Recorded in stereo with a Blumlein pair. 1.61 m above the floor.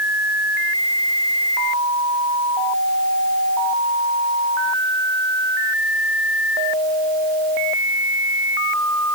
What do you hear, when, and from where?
Only background noise.